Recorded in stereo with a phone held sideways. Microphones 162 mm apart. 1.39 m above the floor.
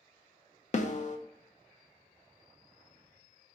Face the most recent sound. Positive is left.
turn(degrees=50)  # may be behind; listen again after turning